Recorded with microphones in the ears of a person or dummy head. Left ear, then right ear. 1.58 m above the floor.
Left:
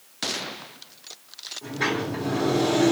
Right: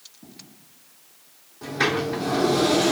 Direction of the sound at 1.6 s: 65° right (ahead or behind).